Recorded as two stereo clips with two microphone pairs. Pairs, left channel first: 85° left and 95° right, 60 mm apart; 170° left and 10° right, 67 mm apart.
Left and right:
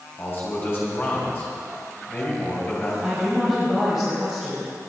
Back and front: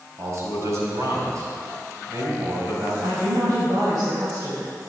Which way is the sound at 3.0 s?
15° right.